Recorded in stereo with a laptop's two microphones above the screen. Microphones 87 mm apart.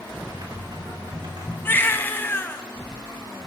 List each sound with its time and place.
0.3 s typing on a keyboard: 60° right (ahead or behind), 3 m
1.6 s a baby crying: 25° left (ahead or behind), 0.6 m